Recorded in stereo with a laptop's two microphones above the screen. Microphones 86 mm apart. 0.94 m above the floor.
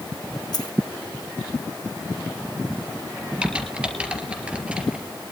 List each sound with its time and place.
0.5 s a dropped coin: 50° left (ahead or behind), 1.6 m
3.4 s typing on a keyboard: 15° right (ahead or behind), 3.5 m